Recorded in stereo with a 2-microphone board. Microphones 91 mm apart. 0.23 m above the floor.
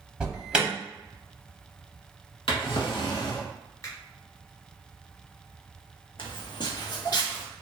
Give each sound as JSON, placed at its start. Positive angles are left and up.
{"t": 0.2, "sound": "an alarm", "side_deg": -10, "distance_m": 0.7}
{"t": 2.5, "sound": "a drawer", "side_deg": 75, "distance_m": 0.7}
{"t": 3.8, "sound": "a finger snap", "side_deg": 35, "distance_m": 1.3}
{"t": 6.2, "sound": "footsteps", "side_deg": 70, "distance_m": 0.7}